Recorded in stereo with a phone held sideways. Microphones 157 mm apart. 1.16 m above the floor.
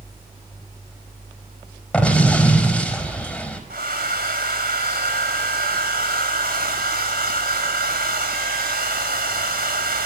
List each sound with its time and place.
1.9 s an explosion: 5° left (ahead or behind), 4.5 m
3.7 s a hair dryer: 80° right, 3.5 m